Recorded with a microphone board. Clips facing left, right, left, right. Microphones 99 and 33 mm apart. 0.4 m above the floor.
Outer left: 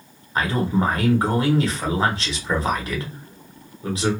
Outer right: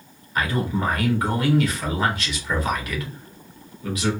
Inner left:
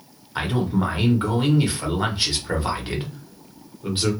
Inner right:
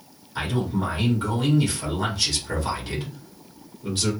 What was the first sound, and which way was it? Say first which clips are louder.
A man speaking: outer left 3 dB, inner left 3 dB; 30° left (ahead or behind).